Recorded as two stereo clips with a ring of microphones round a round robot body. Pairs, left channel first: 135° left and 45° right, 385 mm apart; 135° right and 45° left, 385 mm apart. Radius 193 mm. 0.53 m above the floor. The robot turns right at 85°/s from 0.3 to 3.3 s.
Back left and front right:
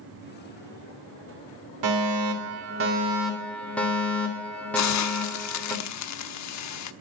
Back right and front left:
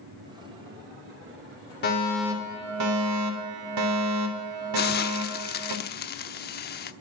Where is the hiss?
165° left, 0.9 m.